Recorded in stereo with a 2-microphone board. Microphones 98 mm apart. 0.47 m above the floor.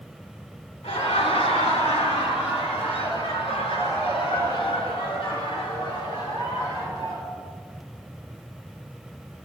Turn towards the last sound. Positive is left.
turn(degrees=55)  # may be behind; listen again after turning